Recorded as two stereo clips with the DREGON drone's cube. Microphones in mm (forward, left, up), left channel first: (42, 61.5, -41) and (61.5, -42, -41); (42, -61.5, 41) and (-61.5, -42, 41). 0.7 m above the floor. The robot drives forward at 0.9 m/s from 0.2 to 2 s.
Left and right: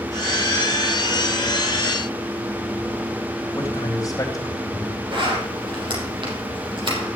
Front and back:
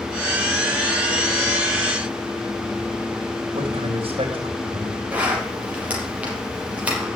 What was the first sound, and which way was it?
A man speaking, 150° left.